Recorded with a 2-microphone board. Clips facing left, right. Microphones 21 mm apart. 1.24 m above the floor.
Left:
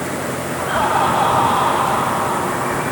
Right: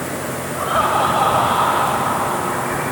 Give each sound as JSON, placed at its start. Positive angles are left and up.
{"t": 0.6, "sound": "laughter", "side_deg": -35, "distance_m": 6.0}